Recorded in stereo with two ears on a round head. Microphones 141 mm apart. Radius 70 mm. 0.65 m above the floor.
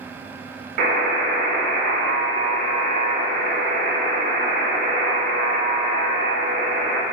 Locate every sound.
0.8 s a buzzer: 60° right (ahead or behind), 0.7 m